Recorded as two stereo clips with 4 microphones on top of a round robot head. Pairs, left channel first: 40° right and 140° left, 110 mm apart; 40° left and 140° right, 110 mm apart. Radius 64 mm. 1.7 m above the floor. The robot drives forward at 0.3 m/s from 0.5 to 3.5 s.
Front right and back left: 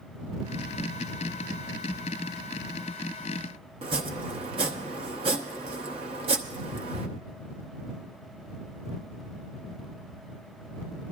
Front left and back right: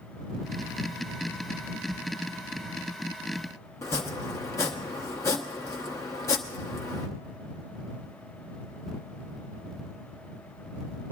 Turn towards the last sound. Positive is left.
turn(degrees=105)